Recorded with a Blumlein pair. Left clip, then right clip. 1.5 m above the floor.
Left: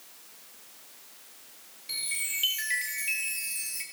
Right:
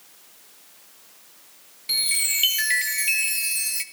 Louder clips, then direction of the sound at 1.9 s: Right 10 dB; 65° right.